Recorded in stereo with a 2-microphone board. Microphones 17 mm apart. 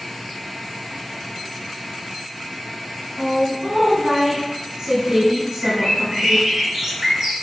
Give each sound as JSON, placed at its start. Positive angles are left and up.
{"t": 3.2, "sound": "a woman speaking", "side_deg": -35, "distance_m": 1.9}
{"t": 5.6, "sound": "a bird", "side_deg": -40, "distance_m": 3.5}